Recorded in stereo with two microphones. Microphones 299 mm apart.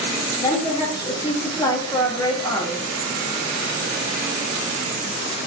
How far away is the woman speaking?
About 1.9 m.